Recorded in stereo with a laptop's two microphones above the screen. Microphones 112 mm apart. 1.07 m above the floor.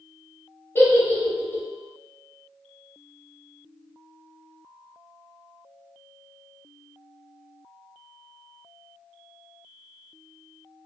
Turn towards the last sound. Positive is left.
turn(degrees=20)  # may be behind; listen again after turning